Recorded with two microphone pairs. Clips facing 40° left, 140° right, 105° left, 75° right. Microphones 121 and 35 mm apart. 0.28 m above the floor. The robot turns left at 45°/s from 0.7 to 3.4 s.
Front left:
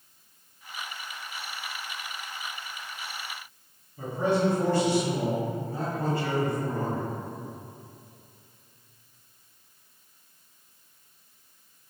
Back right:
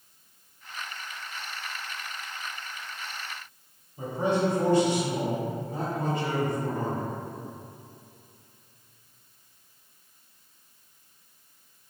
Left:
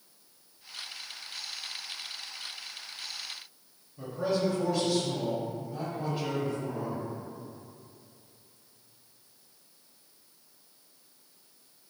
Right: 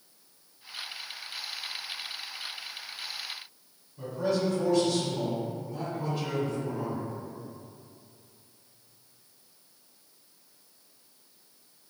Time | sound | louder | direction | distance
4.0 | a man speaking | front left 1 dB, right 1 dB | 170° left | 1.0 m